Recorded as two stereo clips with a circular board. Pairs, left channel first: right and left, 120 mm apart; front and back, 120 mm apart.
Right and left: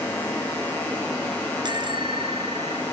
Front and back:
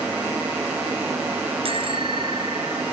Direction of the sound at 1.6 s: 140° left.